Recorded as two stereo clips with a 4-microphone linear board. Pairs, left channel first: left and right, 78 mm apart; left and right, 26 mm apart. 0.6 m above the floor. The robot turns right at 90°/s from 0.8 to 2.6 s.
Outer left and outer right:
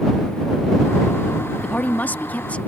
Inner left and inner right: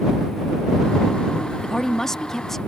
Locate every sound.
1.6 s a woman speaking: 15° left (ahead or behind)